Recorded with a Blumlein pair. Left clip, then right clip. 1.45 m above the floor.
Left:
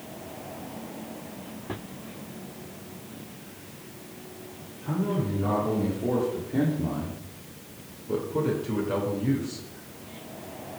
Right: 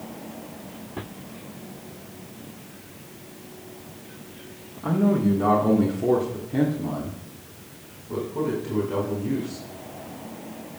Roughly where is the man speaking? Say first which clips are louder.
Right 7 dB; ahead right.